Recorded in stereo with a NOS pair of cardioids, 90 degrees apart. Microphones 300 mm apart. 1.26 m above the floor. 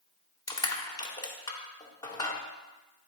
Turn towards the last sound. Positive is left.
turn(degrees=15)